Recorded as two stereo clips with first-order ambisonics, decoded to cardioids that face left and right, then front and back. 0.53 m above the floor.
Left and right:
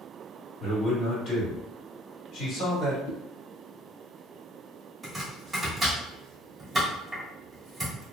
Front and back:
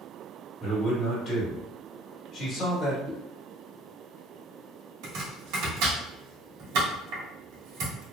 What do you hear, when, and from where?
0.6 s a man speaking: 45° left, 1.8 m
3.1 s a whoosh: 120° left, 0.6 m
5.0 s chopping: 170° right, 1.2 m